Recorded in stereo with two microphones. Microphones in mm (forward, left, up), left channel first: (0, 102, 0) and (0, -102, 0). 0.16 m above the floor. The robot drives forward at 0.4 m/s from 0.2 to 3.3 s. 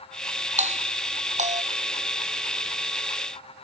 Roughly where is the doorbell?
Right.